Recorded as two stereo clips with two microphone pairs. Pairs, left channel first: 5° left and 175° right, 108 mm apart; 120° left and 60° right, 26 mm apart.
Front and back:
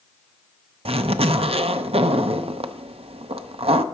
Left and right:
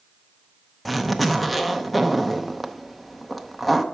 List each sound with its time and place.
0.8 s a zipper: 155° right, 0.5 m